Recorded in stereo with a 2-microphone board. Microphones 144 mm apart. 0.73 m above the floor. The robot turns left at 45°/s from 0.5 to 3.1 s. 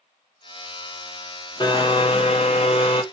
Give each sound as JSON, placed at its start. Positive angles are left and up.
{"t": 1.6, "sound": "a blender", "azimuth_deg": 130, "distance_m": 0.7}